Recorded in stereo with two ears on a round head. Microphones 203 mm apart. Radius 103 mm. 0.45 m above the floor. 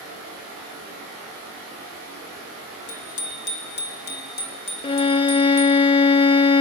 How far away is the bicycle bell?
About 3.5 m.